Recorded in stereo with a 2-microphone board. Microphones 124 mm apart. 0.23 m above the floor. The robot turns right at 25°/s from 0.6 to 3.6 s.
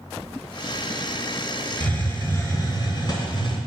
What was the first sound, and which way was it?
A hiss, 20° left.